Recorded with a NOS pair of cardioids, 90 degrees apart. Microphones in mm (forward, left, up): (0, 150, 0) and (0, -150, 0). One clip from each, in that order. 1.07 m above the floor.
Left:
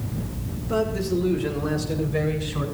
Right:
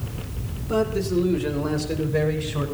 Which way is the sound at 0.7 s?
20° right.